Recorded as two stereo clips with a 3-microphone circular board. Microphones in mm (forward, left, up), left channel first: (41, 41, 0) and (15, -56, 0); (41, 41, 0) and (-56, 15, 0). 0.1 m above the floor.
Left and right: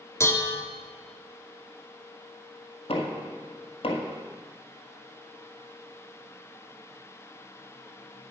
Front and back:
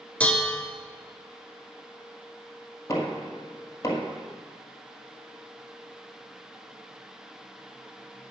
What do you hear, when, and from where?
0.2 s dishes clattering: 75° left, 0.8 m
2.9 s knocking: 65° left, 2 m